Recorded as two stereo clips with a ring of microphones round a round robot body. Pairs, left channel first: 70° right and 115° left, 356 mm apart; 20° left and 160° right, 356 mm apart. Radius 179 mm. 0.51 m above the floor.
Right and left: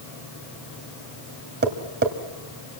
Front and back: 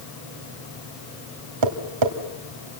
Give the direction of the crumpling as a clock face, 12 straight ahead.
No crumpling in this recording.